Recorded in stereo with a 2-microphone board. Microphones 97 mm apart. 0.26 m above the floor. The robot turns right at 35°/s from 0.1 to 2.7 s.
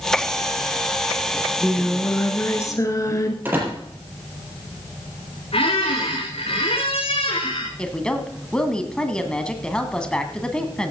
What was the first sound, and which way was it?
Singing, 10° right.